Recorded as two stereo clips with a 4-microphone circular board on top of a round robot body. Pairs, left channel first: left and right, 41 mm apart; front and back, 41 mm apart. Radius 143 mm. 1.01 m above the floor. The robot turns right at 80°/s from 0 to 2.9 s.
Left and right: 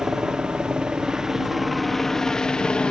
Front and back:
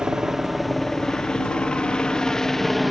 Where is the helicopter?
145° right; by 2.9 s 90° left.